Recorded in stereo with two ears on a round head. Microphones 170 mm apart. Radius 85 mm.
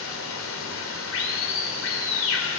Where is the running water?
80° left, 3.5 m.